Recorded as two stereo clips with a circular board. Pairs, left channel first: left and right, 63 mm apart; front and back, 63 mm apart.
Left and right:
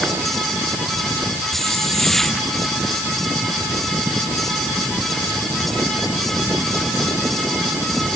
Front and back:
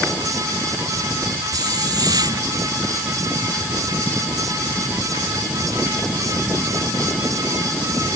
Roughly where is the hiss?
Behind.